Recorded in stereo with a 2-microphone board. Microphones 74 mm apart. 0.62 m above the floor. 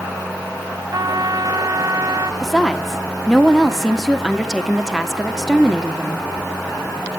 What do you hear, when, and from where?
0.9 s a trumpet: 60° right (ahead or behind), 1.1 m
2.4 s a woman speaking: centre (ahead or behind), 1.4 m